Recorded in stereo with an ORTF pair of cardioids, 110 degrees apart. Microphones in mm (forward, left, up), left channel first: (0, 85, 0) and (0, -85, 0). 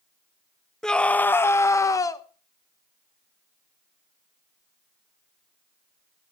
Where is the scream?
5° left, 0.7 m; by 2.2 s 20° left, 1.3 m.